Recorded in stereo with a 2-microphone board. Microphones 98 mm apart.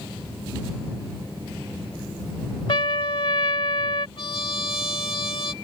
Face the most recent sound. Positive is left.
turn(degrees=60)  # may be behind; listen again after turning